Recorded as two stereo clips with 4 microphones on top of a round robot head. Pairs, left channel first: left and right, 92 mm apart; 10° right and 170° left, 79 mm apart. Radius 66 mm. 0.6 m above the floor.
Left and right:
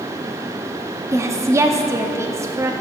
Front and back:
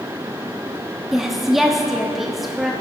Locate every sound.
1.1 s a woman speaking: 105° right, 0.9 m